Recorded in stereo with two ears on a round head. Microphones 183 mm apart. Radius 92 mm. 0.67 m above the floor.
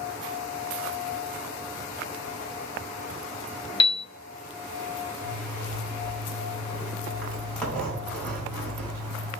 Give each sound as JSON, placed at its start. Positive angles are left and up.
{"t": 3.8, "sound": "a piano", "side_deg": 25, "distance_m": 0.5}
{"t": 5.2, "sound": "a zipper", "side_deg": 5, "distance_m": 3.5}